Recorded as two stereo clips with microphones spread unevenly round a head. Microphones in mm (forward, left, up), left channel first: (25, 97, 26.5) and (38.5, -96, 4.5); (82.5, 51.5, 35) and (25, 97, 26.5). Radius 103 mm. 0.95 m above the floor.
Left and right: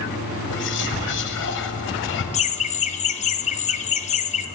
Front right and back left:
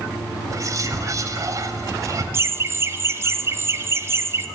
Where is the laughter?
140° left, 0.7 m.